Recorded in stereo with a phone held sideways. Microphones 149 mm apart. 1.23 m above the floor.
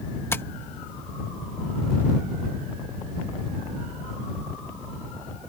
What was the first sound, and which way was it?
Tapping, 15° left (ahead or behind).